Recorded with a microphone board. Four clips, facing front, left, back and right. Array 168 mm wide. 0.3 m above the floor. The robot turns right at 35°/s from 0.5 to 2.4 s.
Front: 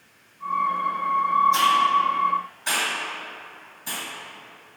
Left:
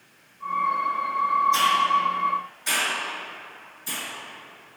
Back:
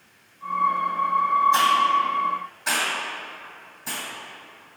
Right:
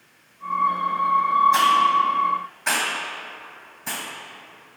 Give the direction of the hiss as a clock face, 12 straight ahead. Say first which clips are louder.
Right 3 dB, even; 4 o'clock.